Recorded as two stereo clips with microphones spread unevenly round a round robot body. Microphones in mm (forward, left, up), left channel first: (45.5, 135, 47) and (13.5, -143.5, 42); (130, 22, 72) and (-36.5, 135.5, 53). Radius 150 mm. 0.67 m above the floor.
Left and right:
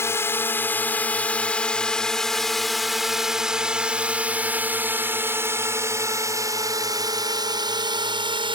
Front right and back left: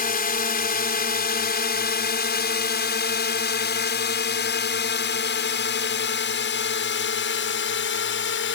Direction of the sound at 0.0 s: 5° left.